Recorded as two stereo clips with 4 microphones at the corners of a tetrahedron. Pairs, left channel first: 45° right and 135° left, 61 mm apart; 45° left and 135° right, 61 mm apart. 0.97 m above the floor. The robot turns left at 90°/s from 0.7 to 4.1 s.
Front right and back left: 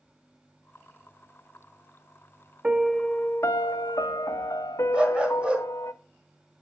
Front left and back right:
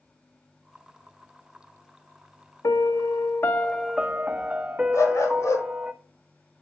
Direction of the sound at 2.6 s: 65° left.